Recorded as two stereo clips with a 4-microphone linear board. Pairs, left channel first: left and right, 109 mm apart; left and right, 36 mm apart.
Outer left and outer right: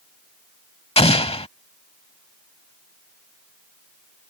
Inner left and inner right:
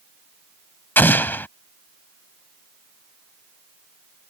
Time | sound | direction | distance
1.0 | an explosion | 65° left (ahead or behind) | ?